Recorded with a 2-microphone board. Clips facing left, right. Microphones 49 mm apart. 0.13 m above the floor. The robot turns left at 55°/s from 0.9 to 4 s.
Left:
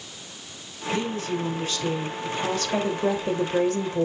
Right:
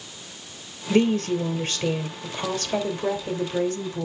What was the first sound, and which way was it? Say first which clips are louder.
A woman speaking: right 7 dB; 85° right.